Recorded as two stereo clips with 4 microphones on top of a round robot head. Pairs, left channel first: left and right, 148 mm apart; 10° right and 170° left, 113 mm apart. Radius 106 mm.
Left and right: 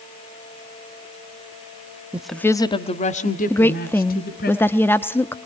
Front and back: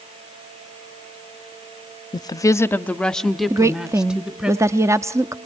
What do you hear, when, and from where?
2.1 s a woman speaking: 15° right, 0.9 m; by 4.5 s 90° left, 2.5 m
3.5 s a woman speaking: 150° left, 0.8 m